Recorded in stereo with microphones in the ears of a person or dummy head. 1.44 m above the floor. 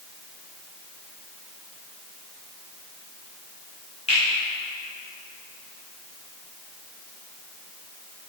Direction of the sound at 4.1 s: 35° left (ahead or behind).